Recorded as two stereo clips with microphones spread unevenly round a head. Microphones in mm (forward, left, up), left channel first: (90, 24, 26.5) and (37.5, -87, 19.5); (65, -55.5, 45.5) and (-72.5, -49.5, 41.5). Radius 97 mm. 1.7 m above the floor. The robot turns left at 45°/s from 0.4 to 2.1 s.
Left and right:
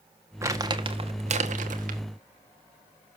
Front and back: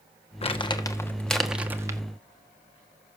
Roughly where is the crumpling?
Ahead right.